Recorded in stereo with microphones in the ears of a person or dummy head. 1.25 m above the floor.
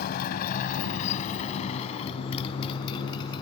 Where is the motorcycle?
55° left (ahead or behind); by 3.4 s 25° left (ahead or behind).